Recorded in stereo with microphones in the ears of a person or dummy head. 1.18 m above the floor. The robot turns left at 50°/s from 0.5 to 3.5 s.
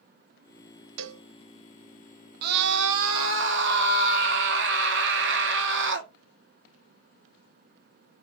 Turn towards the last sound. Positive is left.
turn(degrees=-115)